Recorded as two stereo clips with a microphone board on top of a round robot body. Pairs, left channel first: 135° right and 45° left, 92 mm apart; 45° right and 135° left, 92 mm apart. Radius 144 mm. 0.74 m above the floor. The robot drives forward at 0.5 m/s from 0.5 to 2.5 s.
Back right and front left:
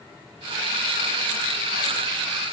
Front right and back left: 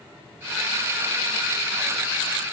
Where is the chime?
No chime in this recording.